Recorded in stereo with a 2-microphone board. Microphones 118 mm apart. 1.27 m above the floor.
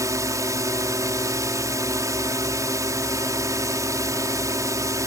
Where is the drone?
25° right (ahead or behind).